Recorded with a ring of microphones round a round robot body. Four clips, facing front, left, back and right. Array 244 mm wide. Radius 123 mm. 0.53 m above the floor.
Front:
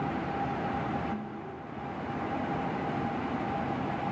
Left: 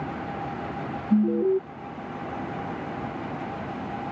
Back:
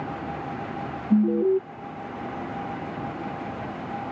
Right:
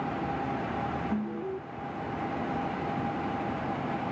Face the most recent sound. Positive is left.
turn(degrees=145)